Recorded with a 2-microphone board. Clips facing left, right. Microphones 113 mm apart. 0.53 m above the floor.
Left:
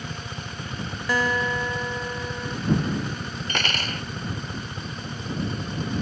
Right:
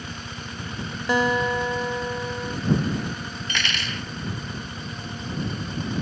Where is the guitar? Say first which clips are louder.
Right 3 dB; 20° right (ahead or behind).